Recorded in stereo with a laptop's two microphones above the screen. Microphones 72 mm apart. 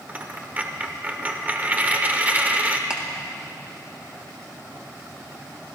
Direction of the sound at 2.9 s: 15° right (ahead or behind).